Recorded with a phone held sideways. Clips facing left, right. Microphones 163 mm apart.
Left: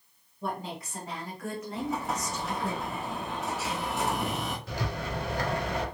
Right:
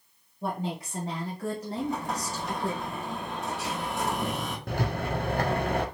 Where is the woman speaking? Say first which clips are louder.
Right 3 dB; 25° right (ahead or behind), 1.0 m; by 2.8 s 30° right (ahead or behind), 0.8 m.